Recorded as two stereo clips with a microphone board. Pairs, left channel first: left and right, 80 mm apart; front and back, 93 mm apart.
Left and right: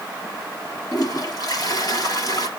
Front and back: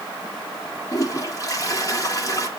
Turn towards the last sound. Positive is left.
turn(degrees=50)